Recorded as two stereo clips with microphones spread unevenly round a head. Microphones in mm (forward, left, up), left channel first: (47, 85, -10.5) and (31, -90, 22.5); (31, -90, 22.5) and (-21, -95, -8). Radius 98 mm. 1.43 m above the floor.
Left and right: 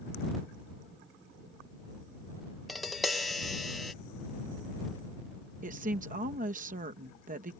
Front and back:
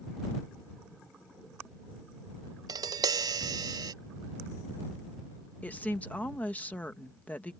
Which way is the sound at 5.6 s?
50° right.